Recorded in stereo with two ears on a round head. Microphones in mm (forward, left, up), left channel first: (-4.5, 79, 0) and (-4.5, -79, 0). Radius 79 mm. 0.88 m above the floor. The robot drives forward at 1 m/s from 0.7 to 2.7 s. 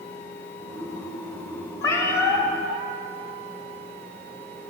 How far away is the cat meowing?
About 1.8 m.